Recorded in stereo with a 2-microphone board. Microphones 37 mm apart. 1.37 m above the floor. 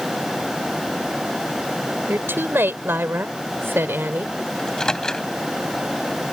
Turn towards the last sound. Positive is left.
turn(degrees=15)  # may be behind; listen again after turning